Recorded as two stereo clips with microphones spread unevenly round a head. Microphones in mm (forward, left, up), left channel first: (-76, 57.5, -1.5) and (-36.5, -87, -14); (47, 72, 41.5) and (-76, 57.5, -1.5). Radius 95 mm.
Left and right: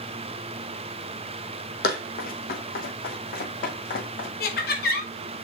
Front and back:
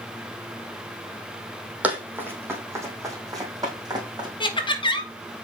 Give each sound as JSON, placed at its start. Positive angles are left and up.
{"t": 1.8, "sound": "running footsteps", "azimuth_deg": 100, "distance_m": 2.5}
{"t": 4.4, "sound": "laughter", "azimuth_deg": 65, "distance_m": 1.5}